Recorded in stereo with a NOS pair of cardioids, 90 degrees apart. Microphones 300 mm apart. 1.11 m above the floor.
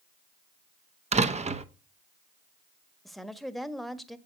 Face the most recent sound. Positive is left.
turn(degrees=0)